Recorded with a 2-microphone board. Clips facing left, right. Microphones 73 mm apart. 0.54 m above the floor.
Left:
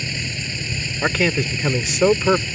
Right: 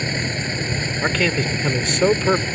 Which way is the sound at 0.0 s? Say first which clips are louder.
Right 5 dB; 45° right (ahead or behind).